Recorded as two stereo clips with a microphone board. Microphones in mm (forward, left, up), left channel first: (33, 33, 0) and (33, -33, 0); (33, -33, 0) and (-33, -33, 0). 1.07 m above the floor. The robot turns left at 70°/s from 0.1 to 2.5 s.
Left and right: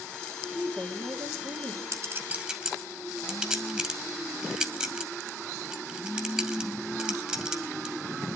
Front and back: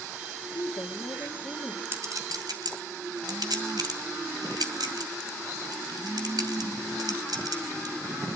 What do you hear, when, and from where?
0.6 s a woman speaking: straight ahead, 3 m; by 1.8 s 90° right, 3 m
1.9 s a clink: 125° right, 2.5 m; by 8.0 s 170° right, 2.5 m